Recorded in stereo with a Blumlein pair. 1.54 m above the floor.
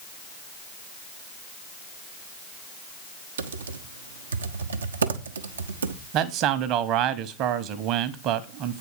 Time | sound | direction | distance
3.4 | typing on a keyboard | 70° right | 0.8 m
6.1 | a man speaking | 40° right | 1.0 m